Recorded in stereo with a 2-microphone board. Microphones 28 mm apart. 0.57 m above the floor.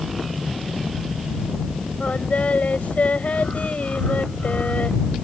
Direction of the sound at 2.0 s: 55° left (ahead or behind).